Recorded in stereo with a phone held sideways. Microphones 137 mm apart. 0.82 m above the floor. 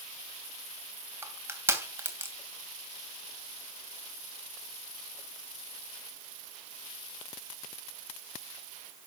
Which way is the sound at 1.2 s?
15° right (ahead or behind).